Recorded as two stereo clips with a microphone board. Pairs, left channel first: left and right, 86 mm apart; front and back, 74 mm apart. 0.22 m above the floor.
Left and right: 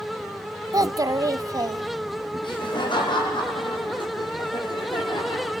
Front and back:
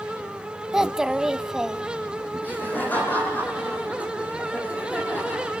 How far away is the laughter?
About 8 m.